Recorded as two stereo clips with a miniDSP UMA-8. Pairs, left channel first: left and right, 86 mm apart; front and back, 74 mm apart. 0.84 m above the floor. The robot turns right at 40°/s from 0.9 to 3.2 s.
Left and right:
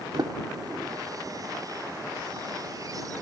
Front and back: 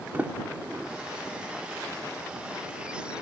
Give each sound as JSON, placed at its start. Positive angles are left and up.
{"t": 0.1, "sound": "a sliding door", "azimuth_deg": -115}